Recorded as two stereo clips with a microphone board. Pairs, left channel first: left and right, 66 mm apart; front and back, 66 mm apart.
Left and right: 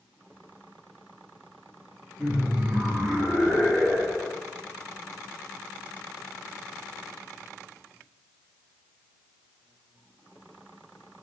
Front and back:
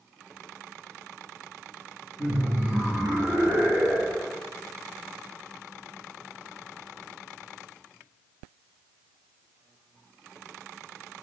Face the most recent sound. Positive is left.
turn(degrees=155)